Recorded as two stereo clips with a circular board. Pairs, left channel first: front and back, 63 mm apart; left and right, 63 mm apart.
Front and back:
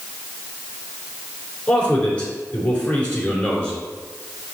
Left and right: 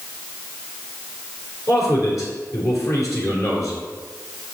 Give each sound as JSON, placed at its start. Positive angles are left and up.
{"t": 1.7, "sound": "a man speaking", "azimuth_deg": 65, "distance_m": 3.0}